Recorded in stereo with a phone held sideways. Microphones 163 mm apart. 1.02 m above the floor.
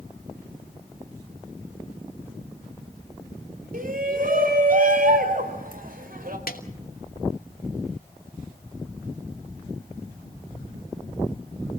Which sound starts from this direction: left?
A snare drum, at 6.5 s.